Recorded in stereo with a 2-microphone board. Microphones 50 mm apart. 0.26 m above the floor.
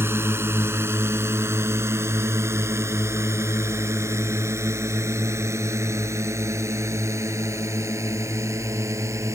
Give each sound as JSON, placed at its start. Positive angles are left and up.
{"t": 0.0, "sound": "a drone", "side_deg": -50}